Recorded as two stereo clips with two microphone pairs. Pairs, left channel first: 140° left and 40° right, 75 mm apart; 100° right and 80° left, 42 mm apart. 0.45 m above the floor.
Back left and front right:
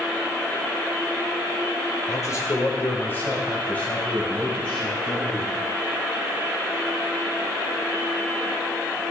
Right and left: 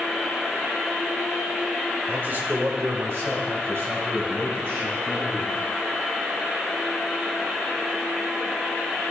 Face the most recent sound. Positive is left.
turn(degrees=60)